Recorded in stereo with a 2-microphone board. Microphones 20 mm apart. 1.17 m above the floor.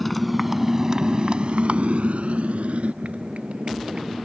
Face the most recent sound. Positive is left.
turn(degrees=-70)  # may be behind; listen again after turning